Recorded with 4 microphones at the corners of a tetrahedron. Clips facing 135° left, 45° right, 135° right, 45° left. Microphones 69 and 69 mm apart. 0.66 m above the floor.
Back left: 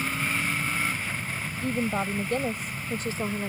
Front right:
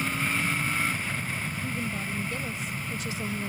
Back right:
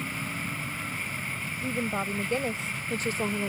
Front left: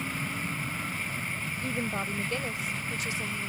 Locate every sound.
1.6 s a woman speaking: 145° left; by 3.5 s 170° right